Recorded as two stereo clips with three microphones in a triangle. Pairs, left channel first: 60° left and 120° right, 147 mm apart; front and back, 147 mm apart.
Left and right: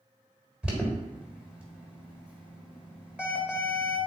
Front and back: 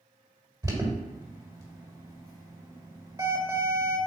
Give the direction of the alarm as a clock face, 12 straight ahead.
6 o'clock.